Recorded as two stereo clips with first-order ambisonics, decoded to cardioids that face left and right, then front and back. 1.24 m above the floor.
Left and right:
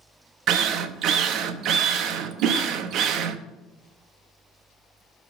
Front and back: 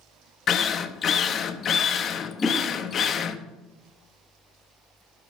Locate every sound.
0.5 s a drill: 55° right, 0.8 m
2.4 s a whoosh: 80° right, 2.5 m